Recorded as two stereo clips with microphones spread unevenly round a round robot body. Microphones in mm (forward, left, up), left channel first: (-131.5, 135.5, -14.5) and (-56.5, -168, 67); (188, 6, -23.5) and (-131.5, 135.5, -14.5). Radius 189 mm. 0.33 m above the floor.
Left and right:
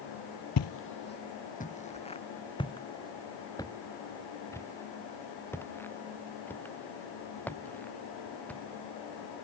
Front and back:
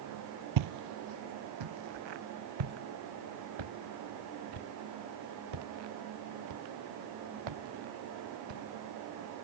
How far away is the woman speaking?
I don't hear a woman speaking.